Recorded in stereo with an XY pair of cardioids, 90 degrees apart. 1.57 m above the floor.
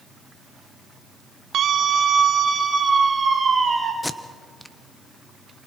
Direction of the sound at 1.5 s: 65° right.